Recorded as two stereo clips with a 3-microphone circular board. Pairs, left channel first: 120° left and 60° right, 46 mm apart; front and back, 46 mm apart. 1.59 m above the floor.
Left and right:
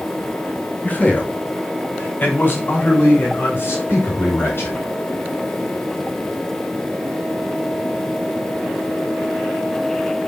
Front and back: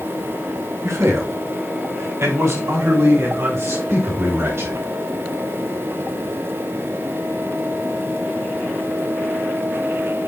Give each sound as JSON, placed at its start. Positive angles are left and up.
{"t": 0.8, "sound": "a man speaking", "azimuth_deg": 175, "distance_m": 2.5}